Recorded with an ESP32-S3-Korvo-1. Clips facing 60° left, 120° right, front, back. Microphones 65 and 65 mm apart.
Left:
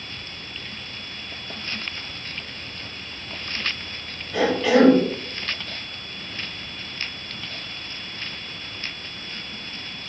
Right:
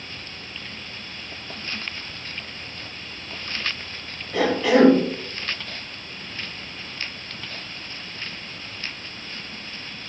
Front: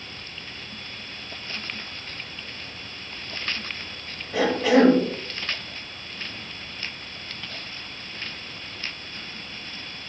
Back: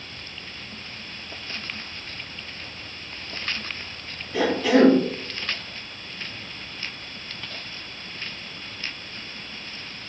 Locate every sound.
4.3 s a cough: 45° right, 1.8 m